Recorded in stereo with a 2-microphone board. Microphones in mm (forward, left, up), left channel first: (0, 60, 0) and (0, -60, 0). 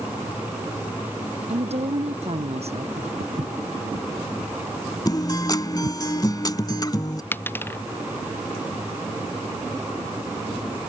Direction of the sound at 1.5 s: 60° right (ahead or behind).